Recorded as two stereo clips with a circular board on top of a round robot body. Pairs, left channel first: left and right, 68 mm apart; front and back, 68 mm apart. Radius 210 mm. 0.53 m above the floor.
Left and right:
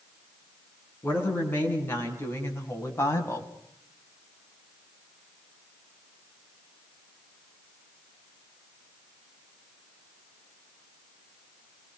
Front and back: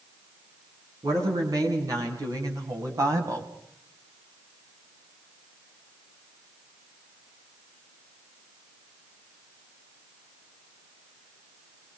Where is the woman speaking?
150° left, 7.5 m; by 3.5 s 135° left, 4.5 m.